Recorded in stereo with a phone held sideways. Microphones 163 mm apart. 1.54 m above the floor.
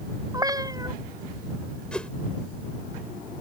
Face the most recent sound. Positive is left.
turn(degrees=5)  # may be behind; listen again after turning